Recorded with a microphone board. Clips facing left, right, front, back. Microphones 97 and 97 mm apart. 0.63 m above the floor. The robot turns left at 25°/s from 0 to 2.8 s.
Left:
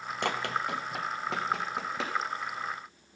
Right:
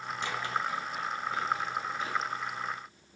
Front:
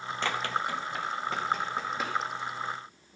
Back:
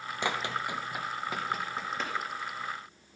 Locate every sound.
0.2 s running footsteps: 105° left, 1.1 m; by 2.2 s 85° left, 2.5 m